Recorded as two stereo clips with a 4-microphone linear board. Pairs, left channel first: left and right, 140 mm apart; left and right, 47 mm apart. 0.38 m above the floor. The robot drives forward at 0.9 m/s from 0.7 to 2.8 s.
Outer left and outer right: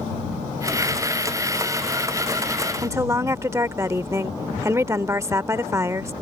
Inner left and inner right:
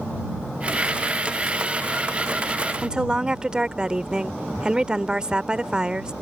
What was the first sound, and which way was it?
A woman speaking, 20° right (ahead or behind).